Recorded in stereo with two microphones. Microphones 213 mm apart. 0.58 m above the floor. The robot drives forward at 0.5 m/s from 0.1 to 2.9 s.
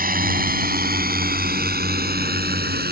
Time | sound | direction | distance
0.0 | a drone | 45° right (ahead or behind) | ?